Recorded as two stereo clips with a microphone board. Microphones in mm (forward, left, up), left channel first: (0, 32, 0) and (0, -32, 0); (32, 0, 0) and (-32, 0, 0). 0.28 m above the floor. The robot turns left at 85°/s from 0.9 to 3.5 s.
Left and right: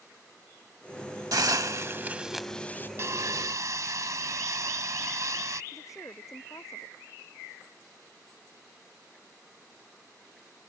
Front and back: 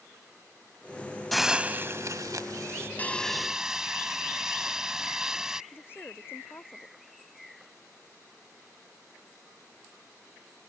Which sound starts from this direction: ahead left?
A woman speaking, at 5.7 s.